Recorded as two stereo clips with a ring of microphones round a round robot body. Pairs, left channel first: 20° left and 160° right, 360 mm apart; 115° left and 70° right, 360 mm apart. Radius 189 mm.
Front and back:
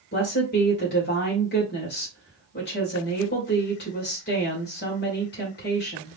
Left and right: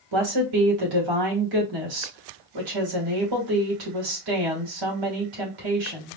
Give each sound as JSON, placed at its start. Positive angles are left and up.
{"t": 0.1, "sound": "a woman speaking", "azimuth_deg": -40, "distance_m": 2.5}